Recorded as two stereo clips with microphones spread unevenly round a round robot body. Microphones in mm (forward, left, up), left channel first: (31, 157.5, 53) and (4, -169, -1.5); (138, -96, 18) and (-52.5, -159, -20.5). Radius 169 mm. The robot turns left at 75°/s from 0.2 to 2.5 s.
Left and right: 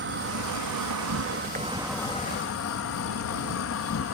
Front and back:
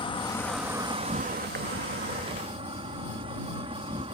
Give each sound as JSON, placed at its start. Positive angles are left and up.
{"t": 0.0, "sound": "an insect", "azimuth_deg": -50}